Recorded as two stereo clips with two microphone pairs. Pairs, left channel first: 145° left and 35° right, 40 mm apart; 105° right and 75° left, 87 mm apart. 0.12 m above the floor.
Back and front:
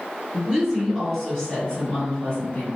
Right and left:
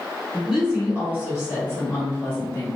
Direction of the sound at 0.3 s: 5° left.